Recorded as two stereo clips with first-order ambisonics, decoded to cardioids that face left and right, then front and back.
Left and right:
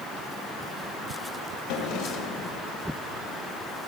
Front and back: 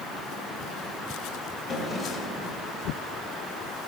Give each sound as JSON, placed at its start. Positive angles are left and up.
{"t": 1.7, "sound": "a drawer", "azimuth_deg": 80, "distance_m": 3.5}